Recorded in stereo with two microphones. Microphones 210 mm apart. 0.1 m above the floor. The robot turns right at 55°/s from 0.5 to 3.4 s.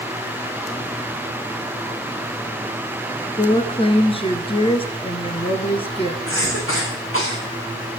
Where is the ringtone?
No ringtone in this recording.